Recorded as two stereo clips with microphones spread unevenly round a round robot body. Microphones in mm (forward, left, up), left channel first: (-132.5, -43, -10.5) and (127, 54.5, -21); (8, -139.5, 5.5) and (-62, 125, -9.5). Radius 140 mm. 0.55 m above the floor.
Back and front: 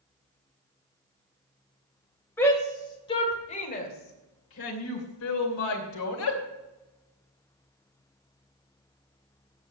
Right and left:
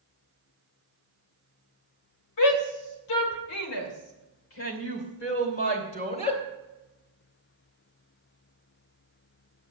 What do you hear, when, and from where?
2.4 s a shout: 75° right, 3 m; by 6.4 s 145° right, 3 m